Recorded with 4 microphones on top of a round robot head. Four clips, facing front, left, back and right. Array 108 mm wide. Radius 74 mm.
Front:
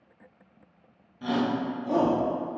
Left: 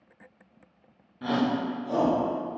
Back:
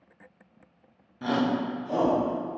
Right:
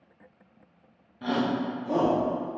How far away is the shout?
About 0.7 m.